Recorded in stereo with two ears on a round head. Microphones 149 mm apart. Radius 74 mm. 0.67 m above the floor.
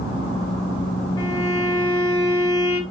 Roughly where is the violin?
Left.